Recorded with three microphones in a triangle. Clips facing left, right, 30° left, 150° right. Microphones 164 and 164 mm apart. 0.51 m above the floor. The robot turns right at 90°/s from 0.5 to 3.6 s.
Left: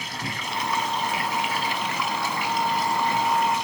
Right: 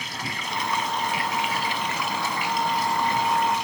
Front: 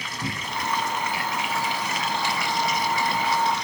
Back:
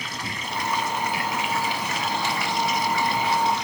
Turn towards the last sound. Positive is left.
turn(degrees=-50)